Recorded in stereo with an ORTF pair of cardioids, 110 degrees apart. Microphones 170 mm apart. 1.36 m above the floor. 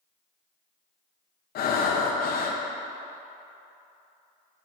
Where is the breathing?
65° left, 1.0 m.